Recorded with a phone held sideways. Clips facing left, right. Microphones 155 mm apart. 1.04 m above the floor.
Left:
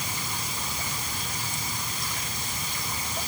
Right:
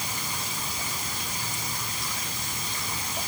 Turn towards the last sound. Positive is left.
No sound to turn to.